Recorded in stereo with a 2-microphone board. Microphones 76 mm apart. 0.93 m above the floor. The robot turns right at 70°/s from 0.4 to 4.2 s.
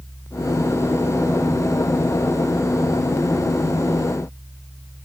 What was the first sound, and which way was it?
Only background noise.